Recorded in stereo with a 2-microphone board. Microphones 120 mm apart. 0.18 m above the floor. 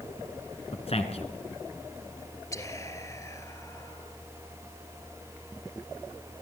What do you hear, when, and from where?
0.7 s a man speaking: 55° left (ahead or behind), 2.5 m
2.5 s whispering: 25° left (ahead or behind), 3 m